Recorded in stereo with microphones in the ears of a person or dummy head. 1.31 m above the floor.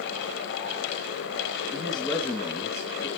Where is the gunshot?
I don't hear a gunshot.